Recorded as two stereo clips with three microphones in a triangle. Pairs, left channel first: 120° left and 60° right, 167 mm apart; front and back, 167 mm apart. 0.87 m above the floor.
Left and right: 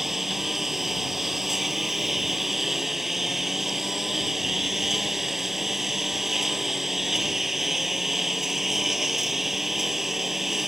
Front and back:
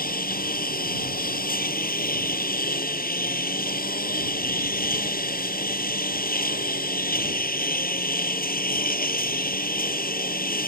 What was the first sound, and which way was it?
A lawn mower, 30° left.